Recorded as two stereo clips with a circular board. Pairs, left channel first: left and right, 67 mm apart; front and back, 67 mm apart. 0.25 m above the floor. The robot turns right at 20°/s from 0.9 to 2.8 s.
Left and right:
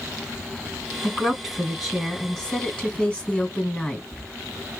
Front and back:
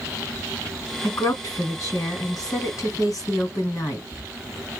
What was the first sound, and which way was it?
A woman speaking, 20° right.